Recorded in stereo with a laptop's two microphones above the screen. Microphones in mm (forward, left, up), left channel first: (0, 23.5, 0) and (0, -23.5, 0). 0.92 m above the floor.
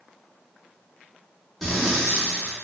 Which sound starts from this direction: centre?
Breathing, at 1.6 s.